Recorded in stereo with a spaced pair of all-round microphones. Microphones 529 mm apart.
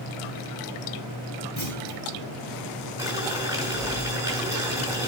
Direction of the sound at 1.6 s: 60° left (ahead or behind).